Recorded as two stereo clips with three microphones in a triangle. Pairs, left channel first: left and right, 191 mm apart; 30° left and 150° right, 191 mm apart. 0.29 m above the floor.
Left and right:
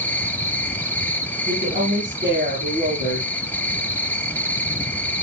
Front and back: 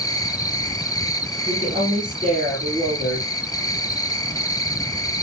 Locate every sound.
0.0 s an insect: 30° left, 0.9 m
1.5 s a woman speaking: 100° right, 6.5 m